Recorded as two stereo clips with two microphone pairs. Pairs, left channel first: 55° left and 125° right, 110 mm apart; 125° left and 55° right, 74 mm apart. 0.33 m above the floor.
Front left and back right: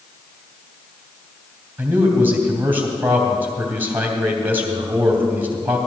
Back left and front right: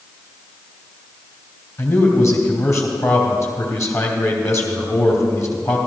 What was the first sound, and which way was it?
A man speaking, 165° left.